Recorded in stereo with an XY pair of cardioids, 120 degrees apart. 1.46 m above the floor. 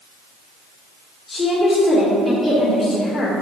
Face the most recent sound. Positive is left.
turn(degrees=25)